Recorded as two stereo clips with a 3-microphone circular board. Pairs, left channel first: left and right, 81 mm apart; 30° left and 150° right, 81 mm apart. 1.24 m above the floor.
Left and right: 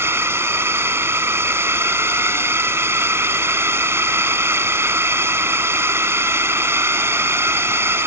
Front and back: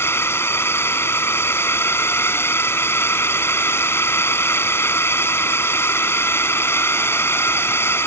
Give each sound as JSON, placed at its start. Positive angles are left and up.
{"t": 0.0, "sound": "a drone", "azimuth_deg": -30}